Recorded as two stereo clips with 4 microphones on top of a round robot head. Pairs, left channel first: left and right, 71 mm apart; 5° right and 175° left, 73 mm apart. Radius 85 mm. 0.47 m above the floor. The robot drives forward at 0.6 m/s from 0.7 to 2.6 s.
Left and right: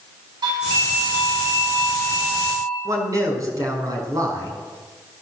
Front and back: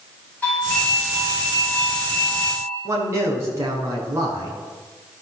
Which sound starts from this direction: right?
A doorbell, at 0.4 s.